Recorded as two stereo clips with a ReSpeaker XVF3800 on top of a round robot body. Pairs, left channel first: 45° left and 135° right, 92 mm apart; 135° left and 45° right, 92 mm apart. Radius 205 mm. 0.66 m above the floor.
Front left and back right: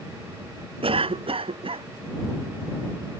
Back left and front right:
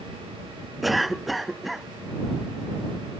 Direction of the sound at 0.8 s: 135° right.